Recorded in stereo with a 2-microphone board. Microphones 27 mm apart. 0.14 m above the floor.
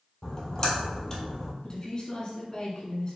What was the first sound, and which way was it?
A splash, 15° left (ahead or behind).